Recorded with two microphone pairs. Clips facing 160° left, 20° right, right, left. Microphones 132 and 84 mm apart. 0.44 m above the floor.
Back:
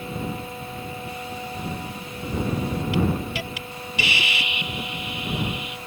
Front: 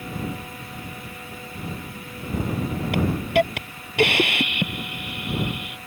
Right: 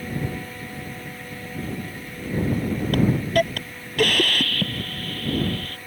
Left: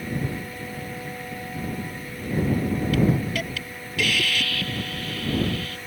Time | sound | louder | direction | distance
2.9 | a hiss | front 6 dB, right 5 dB | 50° right | ?